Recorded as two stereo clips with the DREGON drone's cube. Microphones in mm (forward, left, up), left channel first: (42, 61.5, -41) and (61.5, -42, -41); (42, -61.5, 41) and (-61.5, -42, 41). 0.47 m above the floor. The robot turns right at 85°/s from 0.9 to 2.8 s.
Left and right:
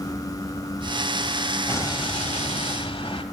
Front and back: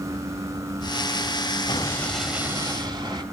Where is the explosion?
35° left, 1.0 m; by 3.2 s 130° left, 1.0 m.